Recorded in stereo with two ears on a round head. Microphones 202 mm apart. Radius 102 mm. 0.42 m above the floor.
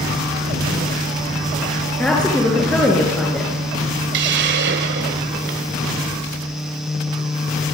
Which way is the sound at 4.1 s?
50° right (ahead or behind).